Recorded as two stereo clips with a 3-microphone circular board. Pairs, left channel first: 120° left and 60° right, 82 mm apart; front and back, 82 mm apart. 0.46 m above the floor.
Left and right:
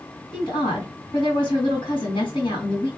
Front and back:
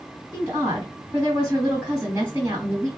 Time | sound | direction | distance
0.3 | a woman speaking | 115° left | 2.5 m